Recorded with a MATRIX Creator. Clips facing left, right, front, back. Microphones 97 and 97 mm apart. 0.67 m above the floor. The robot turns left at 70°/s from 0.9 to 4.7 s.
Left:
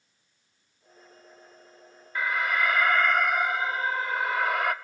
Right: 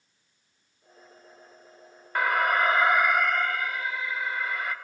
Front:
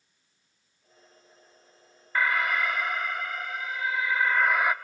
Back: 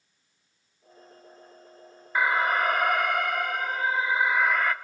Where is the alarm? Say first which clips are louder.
Right 4 dB, back 3 dB; 105° right, 0.7 m; by 4.7 s 75° left, 0.7 m.